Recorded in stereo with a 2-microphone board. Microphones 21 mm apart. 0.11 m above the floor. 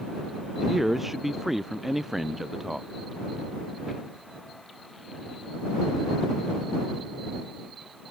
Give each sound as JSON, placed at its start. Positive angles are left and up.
{"t": 0.6, "sound": "a man speaking", "side_deg": -10}